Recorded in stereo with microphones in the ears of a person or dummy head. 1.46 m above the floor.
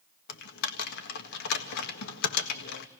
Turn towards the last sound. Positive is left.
turn(degrees=70)  # may be behind; listen again after turning